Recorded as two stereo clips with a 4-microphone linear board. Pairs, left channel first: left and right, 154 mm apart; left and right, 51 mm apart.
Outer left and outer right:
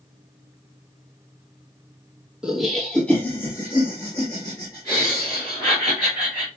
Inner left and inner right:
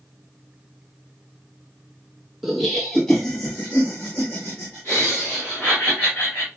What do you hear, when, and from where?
2.4 s laughter: 5° right (ahead or behind), 0.9 m; by 6.5 s 30° left (ahead or behind), 3 m